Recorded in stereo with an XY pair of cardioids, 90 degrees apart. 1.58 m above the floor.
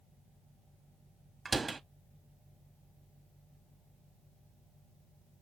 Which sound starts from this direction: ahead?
A door slam, at 1.4 s.